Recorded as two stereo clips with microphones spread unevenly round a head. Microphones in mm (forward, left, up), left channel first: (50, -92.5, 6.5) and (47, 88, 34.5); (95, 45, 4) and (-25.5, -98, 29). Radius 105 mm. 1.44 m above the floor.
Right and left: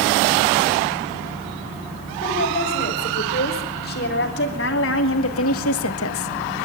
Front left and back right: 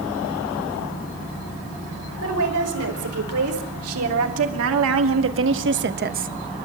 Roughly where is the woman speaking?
Behind right.